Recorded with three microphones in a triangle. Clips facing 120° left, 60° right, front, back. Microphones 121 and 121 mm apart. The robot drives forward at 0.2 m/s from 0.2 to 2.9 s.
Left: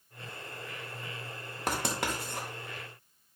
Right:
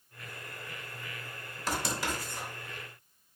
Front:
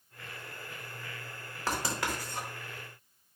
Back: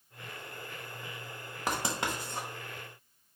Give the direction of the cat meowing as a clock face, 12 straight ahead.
No cat meowing in this recording.